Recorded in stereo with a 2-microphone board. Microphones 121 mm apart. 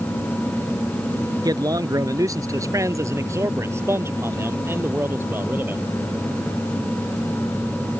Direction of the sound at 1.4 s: 30° right (ahead or behind).